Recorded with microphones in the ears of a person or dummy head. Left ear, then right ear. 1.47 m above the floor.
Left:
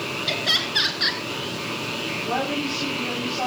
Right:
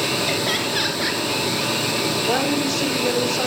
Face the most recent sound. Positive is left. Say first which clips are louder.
# right 4 dB
turn(degrees=-15)  # may be behind; listen again after turning